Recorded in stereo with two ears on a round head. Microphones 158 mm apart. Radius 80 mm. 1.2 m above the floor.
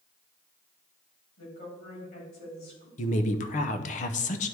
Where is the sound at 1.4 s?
55° left (ahead or behind), 3.5 m.